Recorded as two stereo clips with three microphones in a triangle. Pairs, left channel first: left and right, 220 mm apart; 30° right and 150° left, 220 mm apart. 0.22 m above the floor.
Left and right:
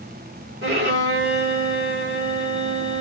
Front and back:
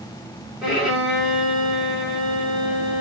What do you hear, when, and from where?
0.6 s a violin: 125° right, 3.5 m